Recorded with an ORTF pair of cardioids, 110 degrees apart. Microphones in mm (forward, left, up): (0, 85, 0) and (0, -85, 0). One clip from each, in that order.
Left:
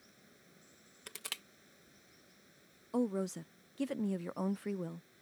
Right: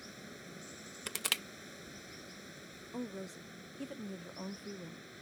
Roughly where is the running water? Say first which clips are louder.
Right 13 dB; right.